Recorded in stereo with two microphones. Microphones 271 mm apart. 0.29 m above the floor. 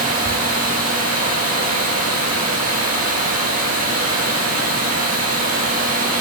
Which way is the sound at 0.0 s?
75° right (ahead or behind).